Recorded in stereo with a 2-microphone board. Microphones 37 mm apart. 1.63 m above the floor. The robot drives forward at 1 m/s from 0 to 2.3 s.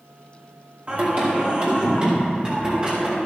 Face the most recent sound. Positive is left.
turn(degrees=-30)  # may be behind; listen again after turning